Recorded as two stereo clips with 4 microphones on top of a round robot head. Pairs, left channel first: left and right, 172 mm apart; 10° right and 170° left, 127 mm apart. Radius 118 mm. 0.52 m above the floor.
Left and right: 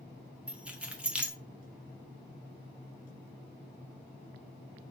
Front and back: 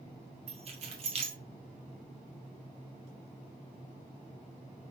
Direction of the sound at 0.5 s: 170° right.